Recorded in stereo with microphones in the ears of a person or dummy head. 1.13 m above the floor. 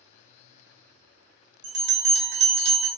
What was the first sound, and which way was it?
A bell, 65° right (ahead or behind).